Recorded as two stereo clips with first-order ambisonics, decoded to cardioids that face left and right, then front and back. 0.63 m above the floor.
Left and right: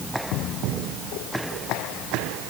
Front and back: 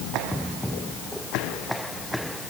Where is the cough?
No cough in this recording.